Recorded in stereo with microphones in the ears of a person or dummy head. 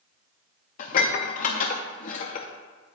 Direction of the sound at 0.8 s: 40° left (ahead or behind).